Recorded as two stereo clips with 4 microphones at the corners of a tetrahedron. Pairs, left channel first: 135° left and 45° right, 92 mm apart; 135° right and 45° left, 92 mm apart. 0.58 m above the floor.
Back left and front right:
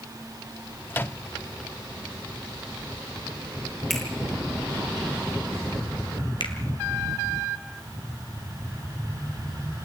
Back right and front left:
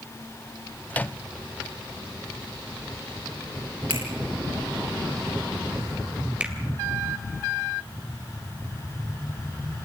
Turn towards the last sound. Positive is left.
turn(degrees=120)